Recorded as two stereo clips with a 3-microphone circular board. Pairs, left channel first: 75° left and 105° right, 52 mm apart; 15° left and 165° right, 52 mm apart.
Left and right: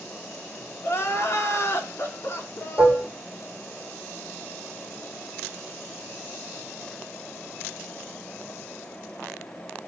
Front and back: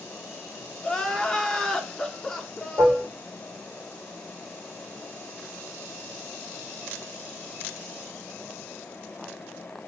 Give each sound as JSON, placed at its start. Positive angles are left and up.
{"t": 0.8, "sound": "crying", "azimuth_deg": 95, "distance_m": 1.2}
{"t": 2.8, "sound": "dishes clattering", "azimuth_deg": 150, "distance_m": 3.0}